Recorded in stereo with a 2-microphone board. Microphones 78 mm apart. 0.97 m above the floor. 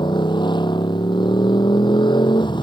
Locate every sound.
0.0 s a motorcycle: 75° left (ahead or behind)